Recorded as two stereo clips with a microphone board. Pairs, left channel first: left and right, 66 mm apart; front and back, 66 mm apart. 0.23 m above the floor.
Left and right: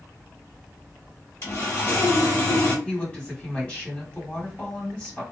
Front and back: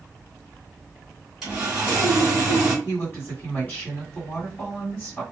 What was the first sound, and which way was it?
Sawing, 100° left.